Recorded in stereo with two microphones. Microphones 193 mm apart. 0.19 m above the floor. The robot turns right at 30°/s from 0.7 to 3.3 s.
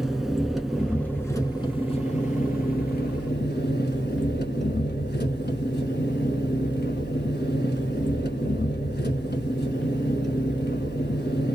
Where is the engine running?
Straight ahead, 0.8 m; by 11.6 s 75° left, 0.8 m.